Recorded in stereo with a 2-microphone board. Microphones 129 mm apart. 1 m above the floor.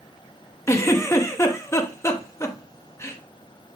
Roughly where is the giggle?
Left.